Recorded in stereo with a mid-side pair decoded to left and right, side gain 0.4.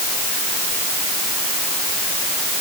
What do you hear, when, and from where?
Only background noise.